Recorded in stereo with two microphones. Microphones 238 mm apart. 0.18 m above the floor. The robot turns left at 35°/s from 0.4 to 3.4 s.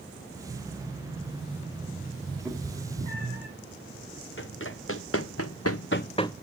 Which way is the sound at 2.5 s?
10° right (ahead or behind).